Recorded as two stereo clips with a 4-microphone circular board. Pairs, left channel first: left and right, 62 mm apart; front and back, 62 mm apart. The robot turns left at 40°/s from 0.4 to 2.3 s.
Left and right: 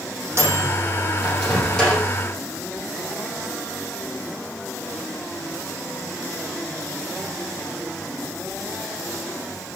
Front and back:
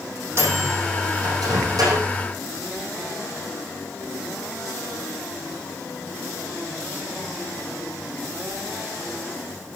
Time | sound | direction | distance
0.4 | a microwave | 135° right | 4 m